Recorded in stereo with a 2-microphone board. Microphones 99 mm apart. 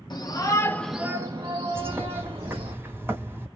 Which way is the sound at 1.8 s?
25° right (ahead or behind).